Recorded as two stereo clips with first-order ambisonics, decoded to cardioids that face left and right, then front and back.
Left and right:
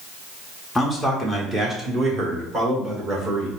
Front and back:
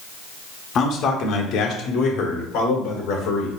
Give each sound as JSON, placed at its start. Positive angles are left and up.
{"t": 0.8, "sound": "a man speaking", "azimuth_deg": 5, "distance_m": 0.7}